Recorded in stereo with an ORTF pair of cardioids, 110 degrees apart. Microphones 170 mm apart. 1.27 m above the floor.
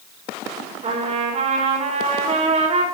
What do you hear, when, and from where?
0.8 s a trumpet: 40° right, 4 m